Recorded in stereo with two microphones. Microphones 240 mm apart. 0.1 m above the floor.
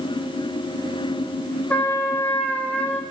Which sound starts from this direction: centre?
A trumpet, at 1.7 s.